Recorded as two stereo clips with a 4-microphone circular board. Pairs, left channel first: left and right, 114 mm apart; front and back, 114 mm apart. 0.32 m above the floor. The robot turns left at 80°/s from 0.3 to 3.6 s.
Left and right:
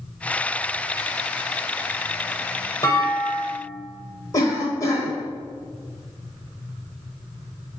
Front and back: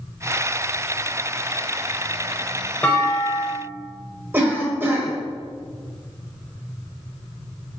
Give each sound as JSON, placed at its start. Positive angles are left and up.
{"t": 2.8, "sound": "a clunk", "azimuth_deg": 65, "distance_m": 0.9}
{"t": 4.3, "sound": "a cough", "azimuth_deg": 120, "distance_m": 1.0}